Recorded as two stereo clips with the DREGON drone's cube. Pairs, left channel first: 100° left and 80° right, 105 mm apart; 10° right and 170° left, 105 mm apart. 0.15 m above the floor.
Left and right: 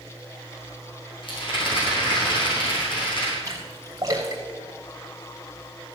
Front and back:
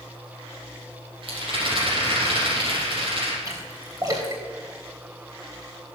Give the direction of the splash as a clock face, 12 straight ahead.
5 o'clock.